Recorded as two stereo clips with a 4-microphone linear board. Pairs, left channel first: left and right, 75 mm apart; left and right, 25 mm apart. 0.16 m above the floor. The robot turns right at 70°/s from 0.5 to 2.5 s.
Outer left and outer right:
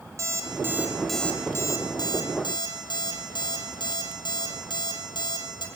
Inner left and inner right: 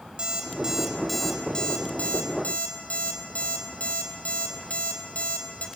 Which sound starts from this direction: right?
An alarm clock, at 0.2 s.